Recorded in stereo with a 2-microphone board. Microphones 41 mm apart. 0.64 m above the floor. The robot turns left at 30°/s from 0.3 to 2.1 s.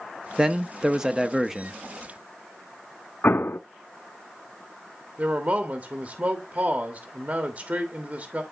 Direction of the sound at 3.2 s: 70° left (ahead or behind).